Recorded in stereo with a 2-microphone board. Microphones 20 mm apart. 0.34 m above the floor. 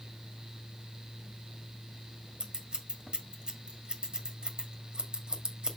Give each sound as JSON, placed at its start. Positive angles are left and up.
{"t": 2.4, "sound": "scissors", "side_deg": -45, "distance_m": 1.7}